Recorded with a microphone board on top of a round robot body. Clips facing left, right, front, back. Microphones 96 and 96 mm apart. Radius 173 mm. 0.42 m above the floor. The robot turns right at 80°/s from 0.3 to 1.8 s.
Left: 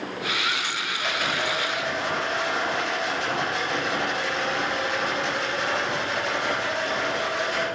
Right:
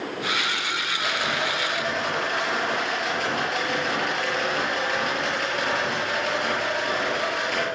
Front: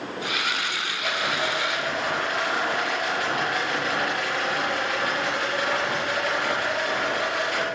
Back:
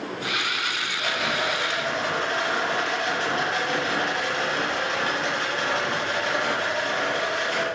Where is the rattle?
175° left, 7 m; by 7.7 s 115° right, 7 m.